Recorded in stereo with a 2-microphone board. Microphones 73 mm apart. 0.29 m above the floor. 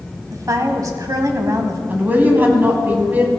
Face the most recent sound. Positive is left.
turn(degrees=-25)  # may be behind; listen again after turning